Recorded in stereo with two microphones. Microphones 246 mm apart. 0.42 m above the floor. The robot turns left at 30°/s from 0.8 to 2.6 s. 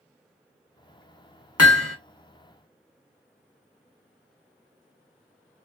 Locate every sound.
1.6 s hammering: 80° left, 0.6 m; by 2.0 s 75° left (ahead or behind), 0.6 m